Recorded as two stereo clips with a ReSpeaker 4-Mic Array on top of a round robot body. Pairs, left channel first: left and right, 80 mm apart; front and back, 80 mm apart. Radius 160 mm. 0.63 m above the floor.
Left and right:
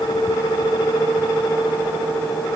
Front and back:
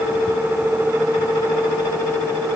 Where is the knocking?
No knocking in this recording.